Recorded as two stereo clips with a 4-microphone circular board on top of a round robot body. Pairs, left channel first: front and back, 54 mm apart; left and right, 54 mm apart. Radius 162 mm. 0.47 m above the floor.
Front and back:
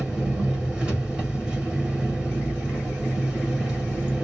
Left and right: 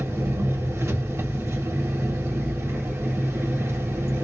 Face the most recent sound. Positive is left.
turn(degrees=-110)